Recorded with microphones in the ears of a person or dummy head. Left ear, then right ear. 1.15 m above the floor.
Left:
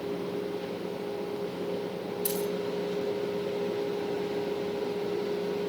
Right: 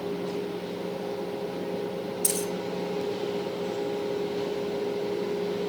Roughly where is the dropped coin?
Right.